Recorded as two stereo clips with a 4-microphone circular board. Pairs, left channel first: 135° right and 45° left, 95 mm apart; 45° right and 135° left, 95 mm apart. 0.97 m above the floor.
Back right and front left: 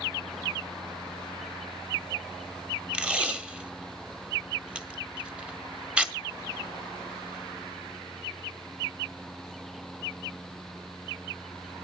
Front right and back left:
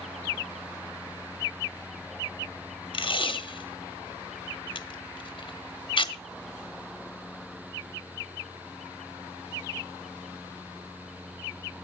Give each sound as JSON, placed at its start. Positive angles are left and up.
{"t": 2.9, "sound": "tape being pulled", "azimuth_deg": -30, "distance_m": 0.9}